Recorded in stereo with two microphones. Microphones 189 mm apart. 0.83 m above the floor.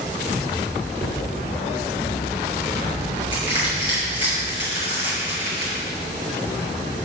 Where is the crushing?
30° left (ahead or behind), 4 m.